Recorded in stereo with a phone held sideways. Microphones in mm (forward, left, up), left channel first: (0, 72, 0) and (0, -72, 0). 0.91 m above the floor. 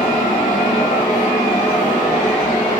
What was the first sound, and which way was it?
A fan, 50° left (ahead or behind).